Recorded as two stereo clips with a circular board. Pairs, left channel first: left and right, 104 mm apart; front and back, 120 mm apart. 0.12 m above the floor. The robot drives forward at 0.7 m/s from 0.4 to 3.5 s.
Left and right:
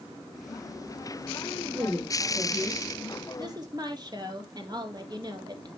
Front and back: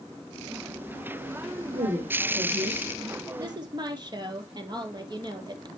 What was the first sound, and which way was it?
A woman speaking, 160° right.